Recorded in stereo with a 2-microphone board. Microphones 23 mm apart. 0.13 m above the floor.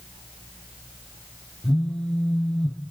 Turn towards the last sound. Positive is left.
turn(degrees=45)  # may be behind; listen again after turning